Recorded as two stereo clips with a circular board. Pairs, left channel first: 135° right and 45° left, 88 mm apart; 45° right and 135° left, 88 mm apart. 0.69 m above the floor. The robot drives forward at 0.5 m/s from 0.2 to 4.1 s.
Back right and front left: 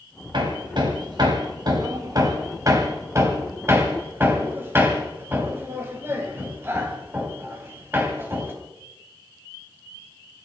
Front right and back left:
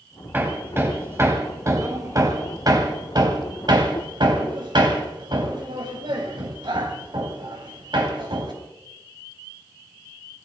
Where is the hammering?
70° left, 3 m; by 8.5 s 105° left, 3 m.